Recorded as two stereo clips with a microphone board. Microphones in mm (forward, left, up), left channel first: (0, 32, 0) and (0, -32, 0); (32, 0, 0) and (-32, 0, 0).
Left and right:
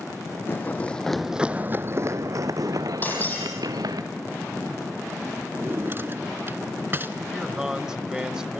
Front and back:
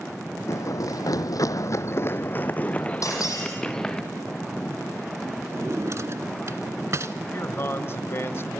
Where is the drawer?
140° right, 1.0 m.